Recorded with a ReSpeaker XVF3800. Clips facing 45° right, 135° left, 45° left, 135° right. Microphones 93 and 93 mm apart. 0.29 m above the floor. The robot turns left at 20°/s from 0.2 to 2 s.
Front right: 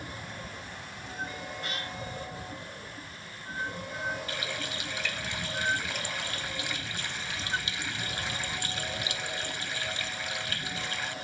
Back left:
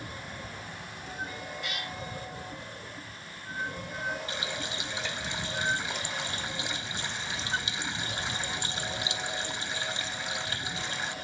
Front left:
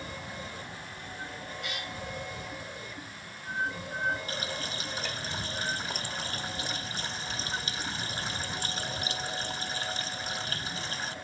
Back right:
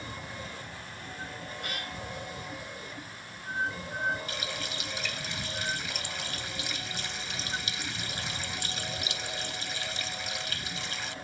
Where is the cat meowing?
95° right; by 1.9 s 100° right.